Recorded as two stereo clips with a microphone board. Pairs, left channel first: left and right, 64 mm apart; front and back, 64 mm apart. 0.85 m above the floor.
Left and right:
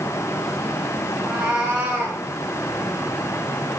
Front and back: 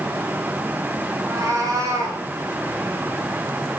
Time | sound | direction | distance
1.2 | a cat meowing | 165° right | 2.5 m